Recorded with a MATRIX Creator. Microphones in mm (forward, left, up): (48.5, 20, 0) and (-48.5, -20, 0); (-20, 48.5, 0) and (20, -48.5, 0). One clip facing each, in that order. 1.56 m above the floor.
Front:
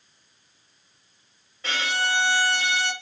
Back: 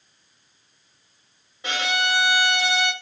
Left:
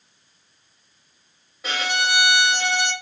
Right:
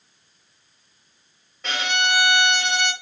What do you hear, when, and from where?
1.6 s a violin: straight behind, 0.9 m